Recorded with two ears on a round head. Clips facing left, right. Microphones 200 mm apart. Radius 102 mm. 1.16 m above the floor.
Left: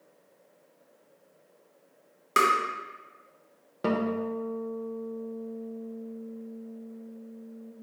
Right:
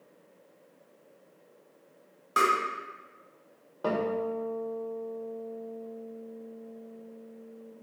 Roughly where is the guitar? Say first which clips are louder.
Left 1 dB; left.